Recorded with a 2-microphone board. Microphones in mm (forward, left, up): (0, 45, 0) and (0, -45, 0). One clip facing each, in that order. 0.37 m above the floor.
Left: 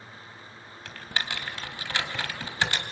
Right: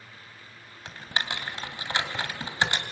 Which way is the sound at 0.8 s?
20° right (ahead or behind).